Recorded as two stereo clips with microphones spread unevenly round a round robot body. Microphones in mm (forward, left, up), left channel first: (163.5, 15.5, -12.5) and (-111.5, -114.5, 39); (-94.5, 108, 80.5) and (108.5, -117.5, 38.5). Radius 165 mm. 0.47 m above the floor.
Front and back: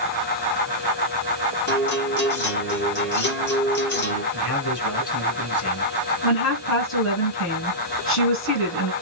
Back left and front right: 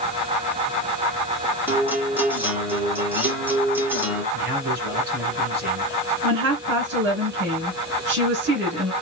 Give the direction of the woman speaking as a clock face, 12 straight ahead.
12 o'clock.